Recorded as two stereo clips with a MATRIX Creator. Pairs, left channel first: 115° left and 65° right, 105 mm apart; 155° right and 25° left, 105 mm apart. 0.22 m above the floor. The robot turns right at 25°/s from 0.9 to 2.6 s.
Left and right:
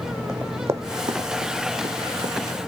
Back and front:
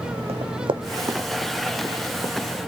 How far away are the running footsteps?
About 0.7 m.